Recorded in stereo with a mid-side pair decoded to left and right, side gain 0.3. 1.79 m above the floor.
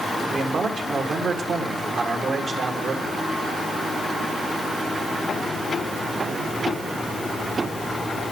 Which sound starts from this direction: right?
A man speaking, at 0.3 s.